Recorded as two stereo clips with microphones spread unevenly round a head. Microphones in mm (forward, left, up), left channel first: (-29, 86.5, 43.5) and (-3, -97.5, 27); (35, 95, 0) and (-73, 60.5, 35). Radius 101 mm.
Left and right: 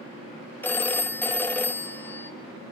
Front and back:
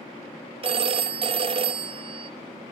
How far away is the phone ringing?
About 0.6 m.